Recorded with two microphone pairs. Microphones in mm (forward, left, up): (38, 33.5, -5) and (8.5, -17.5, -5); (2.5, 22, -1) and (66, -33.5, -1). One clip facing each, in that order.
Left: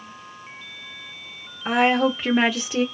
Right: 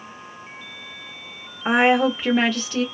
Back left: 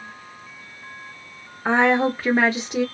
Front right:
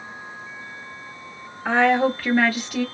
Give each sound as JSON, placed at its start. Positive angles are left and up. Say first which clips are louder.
{"t": 1.6, "sound": "a woman speaking", "louder": "right 2 dB, even", "azimuth_deg": -165, "distance_m": 0.9}